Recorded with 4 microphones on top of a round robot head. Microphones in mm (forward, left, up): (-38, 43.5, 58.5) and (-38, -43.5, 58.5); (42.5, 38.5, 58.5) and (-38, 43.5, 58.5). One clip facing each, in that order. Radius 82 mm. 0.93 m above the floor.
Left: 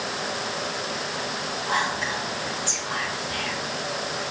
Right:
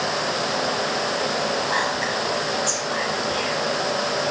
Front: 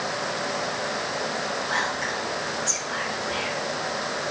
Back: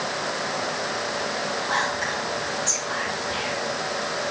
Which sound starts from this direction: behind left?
Whispering, at 1.7 s.